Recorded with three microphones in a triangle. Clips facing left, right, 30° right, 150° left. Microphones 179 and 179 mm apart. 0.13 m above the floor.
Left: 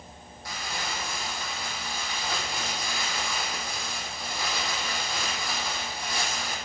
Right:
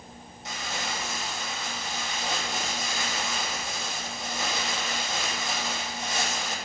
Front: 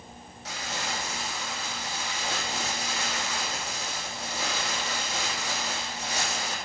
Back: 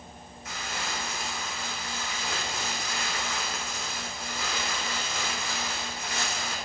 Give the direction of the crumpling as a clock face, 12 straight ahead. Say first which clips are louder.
Right 1 dB, front 2 dB; 1 o'clock.